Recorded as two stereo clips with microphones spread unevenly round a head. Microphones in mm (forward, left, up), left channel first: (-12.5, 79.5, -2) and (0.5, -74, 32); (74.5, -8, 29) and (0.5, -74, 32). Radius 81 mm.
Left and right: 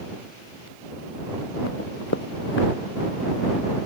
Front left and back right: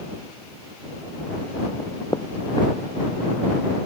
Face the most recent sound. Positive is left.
turn(degrees=100)